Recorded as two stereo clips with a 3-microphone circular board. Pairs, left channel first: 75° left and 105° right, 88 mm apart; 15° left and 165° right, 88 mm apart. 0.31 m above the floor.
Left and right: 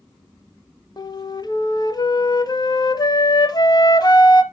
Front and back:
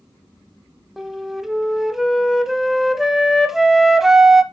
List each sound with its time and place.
1.0 s a flute: 110° left, 0.7 m